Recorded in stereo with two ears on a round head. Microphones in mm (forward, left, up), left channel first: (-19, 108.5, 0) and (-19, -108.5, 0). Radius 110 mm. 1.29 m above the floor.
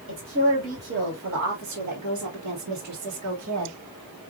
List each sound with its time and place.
0.1 s a woman speaking: 40° right (ahead or behind), 2 m; by 3.8 s 60° right (ahead or behind), 1.3 m